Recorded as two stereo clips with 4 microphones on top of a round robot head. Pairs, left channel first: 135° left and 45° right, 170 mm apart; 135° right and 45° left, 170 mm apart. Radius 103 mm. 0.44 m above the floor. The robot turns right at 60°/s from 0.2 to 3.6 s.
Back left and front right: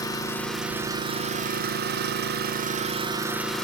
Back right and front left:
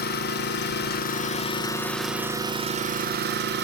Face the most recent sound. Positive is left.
turn(degrees=50)